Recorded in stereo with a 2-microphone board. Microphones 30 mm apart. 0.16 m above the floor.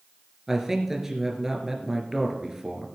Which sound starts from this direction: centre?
A man speaking, at 0.5 s.